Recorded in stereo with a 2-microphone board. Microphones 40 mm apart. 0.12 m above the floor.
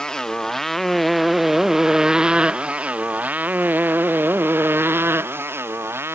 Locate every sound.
0.0 s a motorcycle: 15° left (ahead or behind); by 6.2 s 75° right (ahead or behind)